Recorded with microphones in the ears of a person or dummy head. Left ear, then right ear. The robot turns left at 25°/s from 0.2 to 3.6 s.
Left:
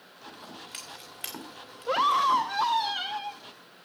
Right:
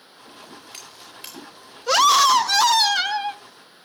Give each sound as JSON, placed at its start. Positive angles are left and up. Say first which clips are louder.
{"t": 0.3, "sound": "scissors", "louder": "right 1 dB", "side_deg": 0, "distance_m": 4.5}
{"t": 1.9, "sound": "a scream", "louder": "right 8 dB", "azimuth_deg": -85, "distance_m": 0.8}